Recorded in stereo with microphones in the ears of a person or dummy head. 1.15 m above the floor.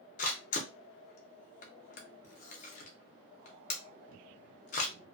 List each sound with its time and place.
0.2 s a camera shutter: 40° left (ahead or behind), 0.6 m